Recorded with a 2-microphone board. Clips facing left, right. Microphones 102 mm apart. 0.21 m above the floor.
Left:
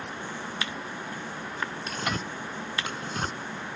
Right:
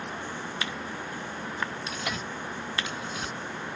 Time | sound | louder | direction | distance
1.9 | tearing paper | left 2 dB | 50° left (ahead or behind) | ?